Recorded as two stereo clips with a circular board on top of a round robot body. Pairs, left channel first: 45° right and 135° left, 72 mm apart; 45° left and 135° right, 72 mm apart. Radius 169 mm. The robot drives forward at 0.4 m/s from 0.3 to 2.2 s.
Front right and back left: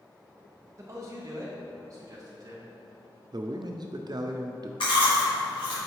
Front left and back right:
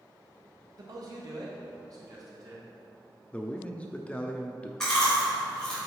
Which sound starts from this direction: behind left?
A man speaking, at 3.3 s.